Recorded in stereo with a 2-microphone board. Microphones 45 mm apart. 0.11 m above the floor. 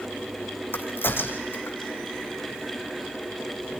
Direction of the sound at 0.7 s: 55° left (ahead or behind).